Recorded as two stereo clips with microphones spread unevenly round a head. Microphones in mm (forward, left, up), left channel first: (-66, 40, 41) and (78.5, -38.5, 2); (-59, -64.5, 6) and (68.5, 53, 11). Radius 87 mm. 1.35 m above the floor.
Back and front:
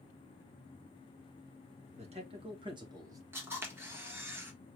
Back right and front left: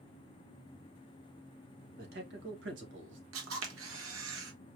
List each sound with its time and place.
2.0 s a man speaking: 15° left, 1.8 m; by 3.2 s 40° left, 1.7 m
3.3 s a camera shutter: 50° left, 1.2 m